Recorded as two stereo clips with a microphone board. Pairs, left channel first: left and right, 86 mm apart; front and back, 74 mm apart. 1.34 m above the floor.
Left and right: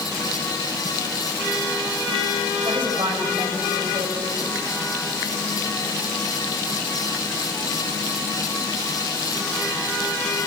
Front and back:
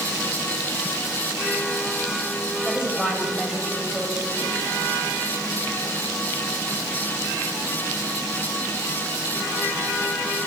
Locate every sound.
2.6 s a woman speaking: 100° right, 8 m